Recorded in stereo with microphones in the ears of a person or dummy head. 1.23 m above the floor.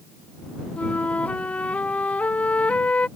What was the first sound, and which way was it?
A flute, 10° left (ahead or behind).